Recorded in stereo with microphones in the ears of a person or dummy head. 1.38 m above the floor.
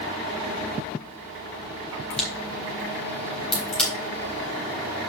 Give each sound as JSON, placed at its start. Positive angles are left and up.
{"t": 2.1, "sound": "a crack", "side_deg": 5, "distance_m": 3.5}